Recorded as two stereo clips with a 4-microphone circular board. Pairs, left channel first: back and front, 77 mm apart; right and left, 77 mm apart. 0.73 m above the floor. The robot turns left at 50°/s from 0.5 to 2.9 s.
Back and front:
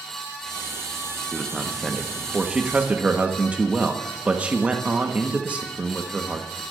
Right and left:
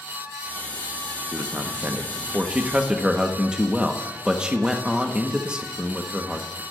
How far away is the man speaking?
About 1.0 m.